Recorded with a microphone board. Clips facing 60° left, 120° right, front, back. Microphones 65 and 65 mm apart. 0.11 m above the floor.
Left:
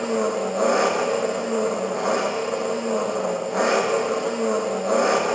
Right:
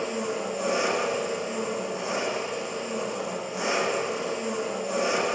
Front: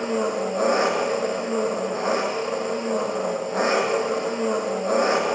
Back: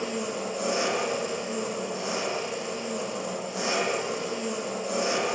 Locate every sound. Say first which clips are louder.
0.0 s an engine running: left 7 dB, front 7 dB; 40° left, 4 m